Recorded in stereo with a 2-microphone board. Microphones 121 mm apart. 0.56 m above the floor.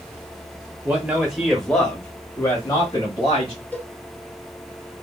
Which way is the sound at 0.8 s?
15° right (ahead or behind).